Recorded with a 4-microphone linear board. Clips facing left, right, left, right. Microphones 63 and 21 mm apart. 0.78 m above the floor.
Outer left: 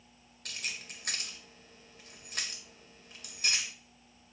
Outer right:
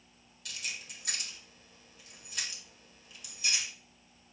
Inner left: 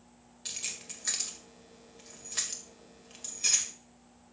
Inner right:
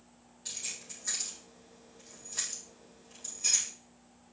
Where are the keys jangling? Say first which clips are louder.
Outer left 1 dB, inner left 2 dB; 55° left (ahead or behind), 1.9 m.